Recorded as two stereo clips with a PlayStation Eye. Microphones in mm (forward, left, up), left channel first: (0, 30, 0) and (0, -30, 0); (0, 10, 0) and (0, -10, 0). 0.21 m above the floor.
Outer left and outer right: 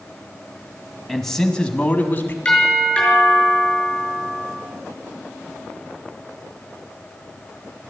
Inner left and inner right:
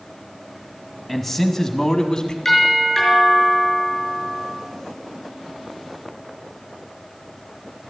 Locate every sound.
1.1 s a man speaking: centre (ahead or behind), 1.3 m; by 2.4 s 35° left (ahead or behind), 1.5 m
2.5 s a doorbell: 15° left (ahead or behind), 5 m